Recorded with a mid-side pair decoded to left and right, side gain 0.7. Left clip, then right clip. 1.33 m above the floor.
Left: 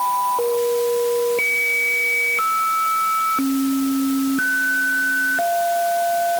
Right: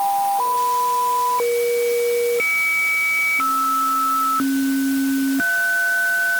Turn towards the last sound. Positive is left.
No sound to turn to.